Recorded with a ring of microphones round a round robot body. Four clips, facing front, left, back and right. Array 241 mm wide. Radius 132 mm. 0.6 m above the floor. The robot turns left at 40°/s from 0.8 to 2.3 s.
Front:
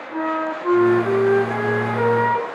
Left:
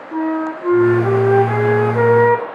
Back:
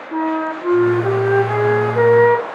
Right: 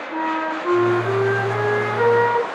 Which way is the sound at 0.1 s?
160° left.